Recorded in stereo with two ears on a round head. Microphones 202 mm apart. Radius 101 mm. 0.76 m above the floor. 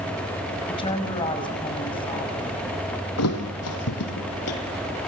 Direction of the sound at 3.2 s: 80° left.